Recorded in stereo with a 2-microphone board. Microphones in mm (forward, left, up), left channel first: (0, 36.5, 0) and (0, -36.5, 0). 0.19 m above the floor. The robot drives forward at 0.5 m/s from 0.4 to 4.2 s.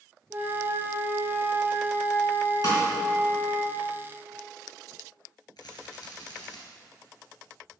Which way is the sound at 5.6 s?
70° left (ahead or behind).